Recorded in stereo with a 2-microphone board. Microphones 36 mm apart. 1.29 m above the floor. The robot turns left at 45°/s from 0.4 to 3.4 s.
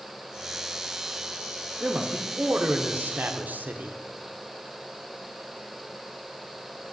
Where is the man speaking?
30° right, 0.7 m; by 4.0 s 100° right, 0.7 m.